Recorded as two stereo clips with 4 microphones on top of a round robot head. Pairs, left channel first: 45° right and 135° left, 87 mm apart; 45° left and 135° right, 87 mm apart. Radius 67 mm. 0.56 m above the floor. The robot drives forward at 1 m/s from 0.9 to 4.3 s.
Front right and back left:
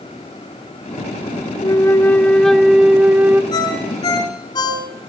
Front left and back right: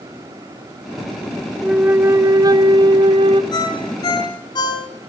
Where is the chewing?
No chewing in this recording.